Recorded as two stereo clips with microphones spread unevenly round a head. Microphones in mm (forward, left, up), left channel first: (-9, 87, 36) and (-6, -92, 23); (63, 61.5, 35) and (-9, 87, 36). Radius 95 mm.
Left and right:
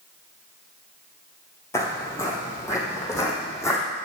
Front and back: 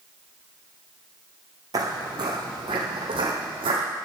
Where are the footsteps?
160° left, 1.7 m; by 3.8 s 165° left, 4 m.